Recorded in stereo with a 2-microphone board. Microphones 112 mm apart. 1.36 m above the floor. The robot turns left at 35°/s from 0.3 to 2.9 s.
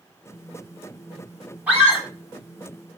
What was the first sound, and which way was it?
A scream, 10° right (ahead or behind).